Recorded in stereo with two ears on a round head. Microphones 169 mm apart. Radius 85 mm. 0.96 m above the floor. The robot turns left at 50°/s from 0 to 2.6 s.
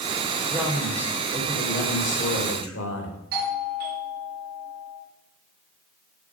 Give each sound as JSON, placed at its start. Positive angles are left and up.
{"t": 0.5, "sound": "a man speaking", "azimuth_deg": -165, "distance_m": 3.5}
{"t": 3.3, "sound": "a doorbell", "side_deg": -55, "distance_m": 4.5}